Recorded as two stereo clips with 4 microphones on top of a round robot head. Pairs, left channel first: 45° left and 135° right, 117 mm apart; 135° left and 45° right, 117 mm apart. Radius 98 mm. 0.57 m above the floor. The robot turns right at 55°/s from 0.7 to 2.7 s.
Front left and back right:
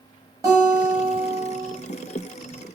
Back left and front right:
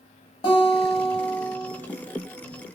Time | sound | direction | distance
0.4 | a guitar | 170° left | 1.0 m